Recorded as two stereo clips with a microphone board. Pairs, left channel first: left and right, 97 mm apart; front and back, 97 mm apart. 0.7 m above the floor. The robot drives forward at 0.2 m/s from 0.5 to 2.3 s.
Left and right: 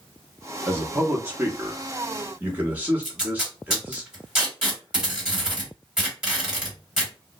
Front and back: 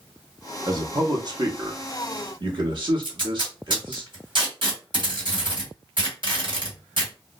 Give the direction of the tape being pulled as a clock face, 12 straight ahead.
6 o'clock.